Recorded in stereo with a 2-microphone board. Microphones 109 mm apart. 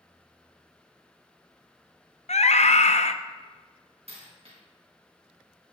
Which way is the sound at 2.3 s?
80° left.